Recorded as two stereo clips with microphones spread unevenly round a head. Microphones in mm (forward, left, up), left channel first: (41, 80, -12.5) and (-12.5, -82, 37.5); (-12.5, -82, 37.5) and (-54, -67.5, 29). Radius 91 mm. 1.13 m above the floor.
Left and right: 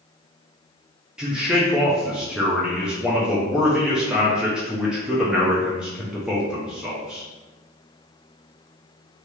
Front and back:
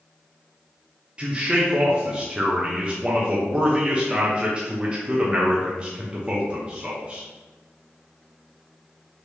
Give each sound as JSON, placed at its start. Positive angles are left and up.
{"t": 1.2, "sound": "a man speaking", "azimuth_deg": 145, "distance_m": 0.6}